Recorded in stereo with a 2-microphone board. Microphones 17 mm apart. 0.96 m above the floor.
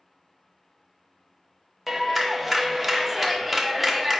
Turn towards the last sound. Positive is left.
turn(degrees=0)  # may be behind; listen again after turning